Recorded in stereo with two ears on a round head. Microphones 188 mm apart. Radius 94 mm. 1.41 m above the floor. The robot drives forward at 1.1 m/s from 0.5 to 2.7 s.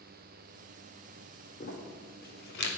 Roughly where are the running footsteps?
No running footsteps in this recording.